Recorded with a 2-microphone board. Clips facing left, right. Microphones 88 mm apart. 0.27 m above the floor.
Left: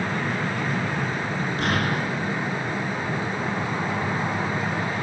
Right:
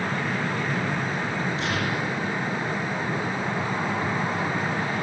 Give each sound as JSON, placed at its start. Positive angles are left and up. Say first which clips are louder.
{"t": 1.6, "sound": "an explosion", "louder": "left 2 dB", "side_deg": 55, "distance_m": 3.5}